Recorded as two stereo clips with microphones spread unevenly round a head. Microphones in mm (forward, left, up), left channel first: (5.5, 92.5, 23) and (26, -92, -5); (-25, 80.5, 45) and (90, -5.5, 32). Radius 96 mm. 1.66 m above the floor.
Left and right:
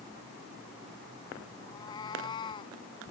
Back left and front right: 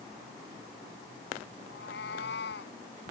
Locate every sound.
1.7 s a cat meowing: 165° left; by 2.8 s 160° left